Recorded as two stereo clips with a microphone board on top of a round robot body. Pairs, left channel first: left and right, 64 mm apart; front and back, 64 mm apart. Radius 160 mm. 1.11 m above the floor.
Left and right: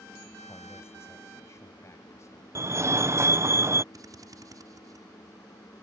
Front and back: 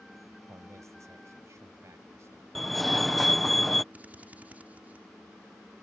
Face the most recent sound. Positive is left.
turn(degrees=-115)